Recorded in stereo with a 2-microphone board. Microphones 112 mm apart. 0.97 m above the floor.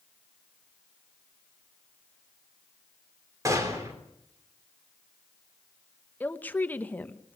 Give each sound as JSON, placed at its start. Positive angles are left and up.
{"t": 3.5, "sound": "a gunshot", "side_deg": -25, "distance_m": 3.5}
{"t": 6.2, "sound": "a woman speaking", "side_deg": 15, "distance_m": 0.9}